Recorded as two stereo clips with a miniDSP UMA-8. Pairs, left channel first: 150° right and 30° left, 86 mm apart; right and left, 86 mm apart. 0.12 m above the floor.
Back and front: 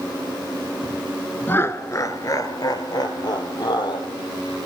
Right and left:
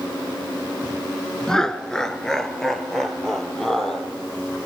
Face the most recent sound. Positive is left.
turn(degrees=-175)